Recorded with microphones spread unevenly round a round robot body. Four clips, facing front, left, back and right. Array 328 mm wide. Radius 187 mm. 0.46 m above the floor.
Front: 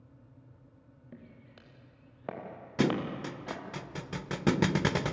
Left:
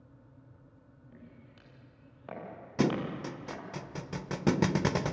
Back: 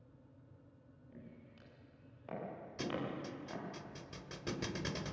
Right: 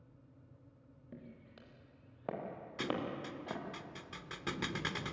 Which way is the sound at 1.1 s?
15° right.